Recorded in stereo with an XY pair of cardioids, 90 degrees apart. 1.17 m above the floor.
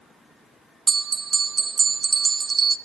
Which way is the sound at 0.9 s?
40° right.